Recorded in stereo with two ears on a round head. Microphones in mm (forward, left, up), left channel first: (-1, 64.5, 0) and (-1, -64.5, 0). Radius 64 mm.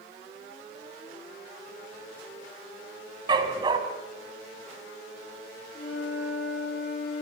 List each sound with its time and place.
3.3 s a dog barking: 30° right (ahead or behind), 1.7 m
5.7 s a flute: 50° left (ahead or behind), 9.5 m